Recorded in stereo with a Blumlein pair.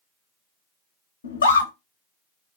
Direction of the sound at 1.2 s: 70° left.